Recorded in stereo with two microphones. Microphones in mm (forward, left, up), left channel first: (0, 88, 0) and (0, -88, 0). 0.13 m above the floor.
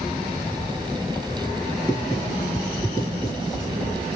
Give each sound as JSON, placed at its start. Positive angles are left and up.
{"t": 1.8, "sound": "writing", "side_deg": 20, "distance_m": 2.0}